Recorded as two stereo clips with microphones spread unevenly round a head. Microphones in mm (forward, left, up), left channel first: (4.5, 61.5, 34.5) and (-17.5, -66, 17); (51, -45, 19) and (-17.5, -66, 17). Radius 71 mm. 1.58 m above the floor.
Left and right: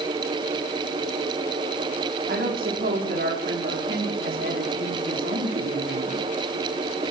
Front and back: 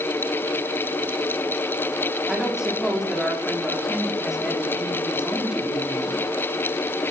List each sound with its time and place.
2.3 s a woman speaking: 80° right, 4.5 m